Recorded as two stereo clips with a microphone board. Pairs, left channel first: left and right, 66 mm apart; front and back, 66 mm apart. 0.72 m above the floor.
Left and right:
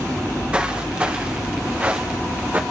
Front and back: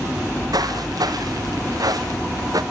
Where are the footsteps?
165° right, 4 m; by 2.6 s 155° right, 2.5 m.